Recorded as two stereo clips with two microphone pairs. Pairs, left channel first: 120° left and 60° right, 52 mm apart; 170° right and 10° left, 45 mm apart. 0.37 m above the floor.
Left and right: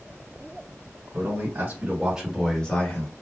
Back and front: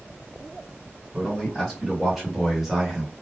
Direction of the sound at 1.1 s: 75° right.